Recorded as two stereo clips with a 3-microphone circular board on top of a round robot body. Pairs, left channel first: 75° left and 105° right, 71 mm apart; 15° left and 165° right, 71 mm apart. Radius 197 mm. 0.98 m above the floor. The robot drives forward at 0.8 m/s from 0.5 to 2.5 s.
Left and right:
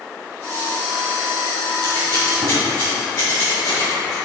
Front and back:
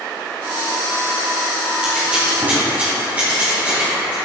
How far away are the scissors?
About 2.5 m.